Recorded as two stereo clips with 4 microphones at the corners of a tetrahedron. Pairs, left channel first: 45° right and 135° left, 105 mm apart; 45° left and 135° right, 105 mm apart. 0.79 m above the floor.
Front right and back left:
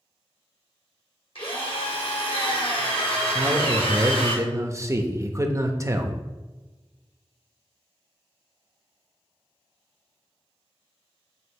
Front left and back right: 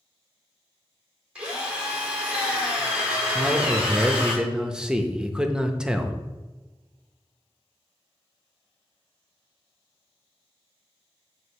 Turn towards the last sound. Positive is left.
turn(degrees=150)